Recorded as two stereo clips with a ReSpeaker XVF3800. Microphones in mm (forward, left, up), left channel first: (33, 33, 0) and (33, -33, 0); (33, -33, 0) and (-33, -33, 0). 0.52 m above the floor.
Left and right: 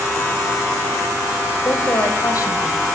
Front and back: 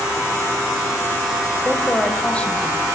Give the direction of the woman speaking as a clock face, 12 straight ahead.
10 o'clock.